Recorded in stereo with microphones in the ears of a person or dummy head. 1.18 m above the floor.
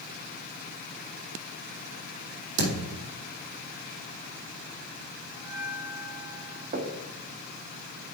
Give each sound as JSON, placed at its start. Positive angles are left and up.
{"t": 2.6, "sound": "a thud", "side_deg": -75, "distance_m": 5.0}
{"t": 5.3, "sound": "a bell", "side_deg": -10, "distance_m": 5.5}
{"t": 6.7, "sound": "knocking", "side_deg": -45, "distance_m": 1.4}